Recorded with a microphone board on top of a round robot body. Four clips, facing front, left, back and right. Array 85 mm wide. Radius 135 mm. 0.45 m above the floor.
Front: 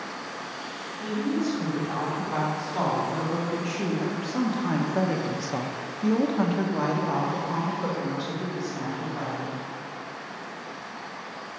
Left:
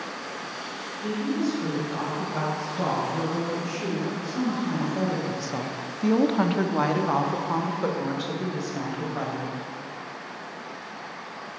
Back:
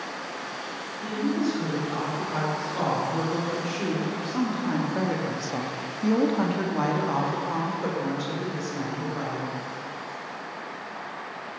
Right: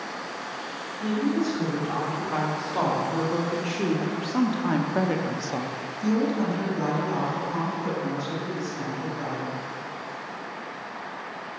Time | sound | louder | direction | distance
1.0 | a woman speaking | right 2 dB, back 1 dB | 80° right | 3.5 m